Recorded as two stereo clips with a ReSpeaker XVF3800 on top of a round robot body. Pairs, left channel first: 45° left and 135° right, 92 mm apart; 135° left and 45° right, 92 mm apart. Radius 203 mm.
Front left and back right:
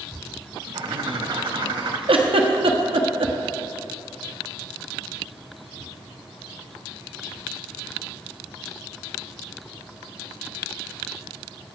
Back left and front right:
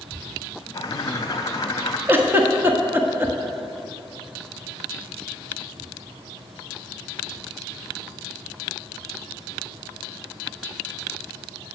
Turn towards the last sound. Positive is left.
turn(degrees=-115)